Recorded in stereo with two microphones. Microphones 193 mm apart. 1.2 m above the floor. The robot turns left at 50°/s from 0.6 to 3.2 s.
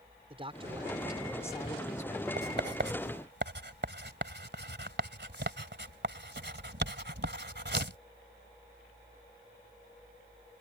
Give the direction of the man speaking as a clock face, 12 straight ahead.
5 o'clock.